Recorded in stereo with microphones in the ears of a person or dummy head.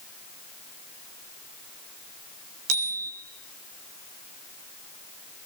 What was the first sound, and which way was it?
A bicycle bell, 85° right.